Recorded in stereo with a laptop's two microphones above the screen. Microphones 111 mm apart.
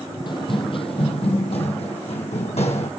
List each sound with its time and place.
0.3 s running footsteps: 45° left (ahead or behind), 1.3 m; by 2.9 s 70° left (ahead or behind), 3 m